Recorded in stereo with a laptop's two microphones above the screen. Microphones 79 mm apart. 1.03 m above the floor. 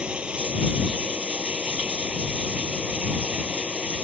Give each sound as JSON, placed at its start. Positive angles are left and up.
{"t": 0.0, "sound": "running water", "side_deg": -10}